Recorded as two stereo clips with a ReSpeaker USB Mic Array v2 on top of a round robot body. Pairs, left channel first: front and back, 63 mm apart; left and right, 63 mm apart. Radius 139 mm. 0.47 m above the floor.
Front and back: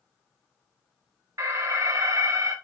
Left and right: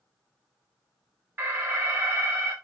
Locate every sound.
1.4 s an alarm: 140° right, 4.5 m